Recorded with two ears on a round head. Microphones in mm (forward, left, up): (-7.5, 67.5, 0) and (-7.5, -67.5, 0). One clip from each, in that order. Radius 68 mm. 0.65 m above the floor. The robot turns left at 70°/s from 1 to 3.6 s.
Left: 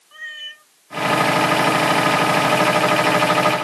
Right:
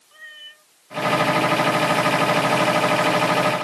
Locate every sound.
0.1 s a cat meowing: 40° left (ahead or behind)